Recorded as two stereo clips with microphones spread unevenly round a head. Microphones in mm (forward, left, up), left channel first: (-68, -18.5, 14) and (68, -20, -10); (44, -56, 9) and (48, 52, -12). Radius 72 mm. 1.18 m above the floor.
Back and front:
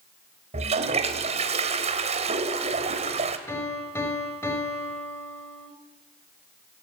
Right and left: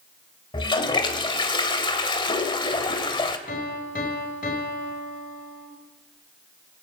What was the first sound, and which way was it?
A toilet flushing, 50° right.